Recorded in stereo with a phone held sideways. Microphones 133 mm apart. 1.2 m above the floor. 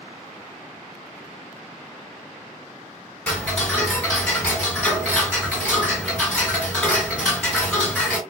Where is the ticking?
5° left (ahead or behind), 1.8 m.